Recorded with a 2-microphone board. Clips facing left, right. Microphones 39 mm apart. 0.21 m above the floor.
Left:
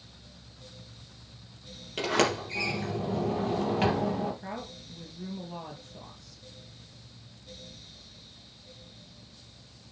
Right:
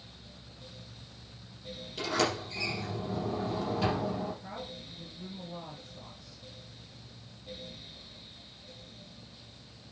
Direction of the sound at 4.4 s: 60° left (ahead or behind).